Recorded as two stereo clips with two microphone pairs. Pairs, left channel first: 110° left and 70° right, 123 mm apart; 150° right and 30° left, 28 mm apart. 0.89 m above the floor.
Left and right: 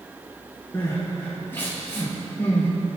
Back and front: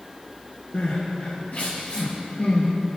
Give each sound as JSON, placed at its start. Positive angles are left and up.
{"t": 0.7, "sound": "crying", "azimuth_deg": 180, "distance_m": 4.5}